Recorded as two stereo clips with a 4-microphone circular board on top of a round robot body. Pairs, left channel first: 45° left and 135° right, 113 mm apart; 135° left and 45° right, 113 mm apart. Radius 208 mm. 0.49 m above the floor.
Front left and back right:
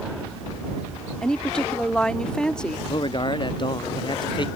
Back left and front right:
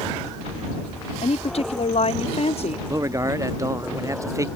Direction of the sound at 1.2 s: 125° left.